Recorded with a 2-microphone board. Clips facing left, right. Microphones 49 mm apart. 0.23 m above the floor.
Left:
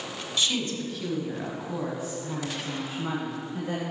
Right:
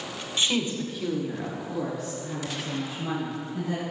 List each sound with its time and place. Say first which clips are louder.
0.4 s a woman speaking: right 2 dB; 30° right (ahead or behind), 1.1 m; by 3.8 s 40° left (ahead or behind), 2.5 m